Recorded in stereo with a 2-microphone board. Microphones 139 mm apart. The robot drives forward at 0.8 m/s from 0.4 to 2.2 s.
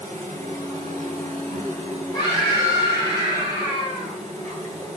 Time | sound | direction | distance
0.0 | an insect | 65° right (ahead or behind) | 5.5 m
2.1 | a scream | 30° left (ahead or behind) | 7 m